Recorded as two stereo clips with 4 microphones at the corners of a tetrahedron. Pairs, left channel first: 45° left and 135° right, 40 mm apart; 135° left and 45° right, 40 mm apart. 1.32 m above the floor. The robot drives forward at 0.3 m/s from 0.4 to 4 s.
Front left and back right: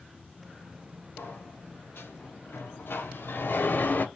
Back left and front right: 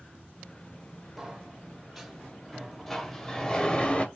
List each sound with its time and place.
1.2 s a sliding door: 35° left, 1.2 m; by 4.0 s 80° left, 0.7 m